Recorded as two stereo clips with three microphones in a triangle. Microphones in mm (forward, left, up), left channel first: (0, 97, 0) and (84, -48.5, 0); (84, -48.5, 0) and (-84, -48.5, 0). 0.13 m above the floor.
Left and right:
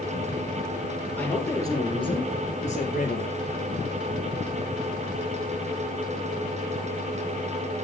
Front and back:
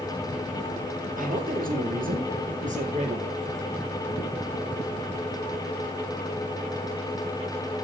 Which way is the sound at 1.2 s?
160° right.